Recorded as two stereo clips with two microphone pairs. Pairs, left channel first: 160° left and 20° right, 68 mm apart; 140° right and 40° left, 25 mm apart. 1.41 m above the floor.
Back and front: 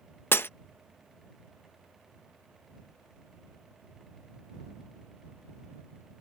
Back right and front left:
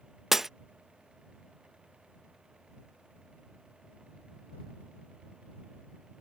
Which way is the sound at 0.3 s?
115° left.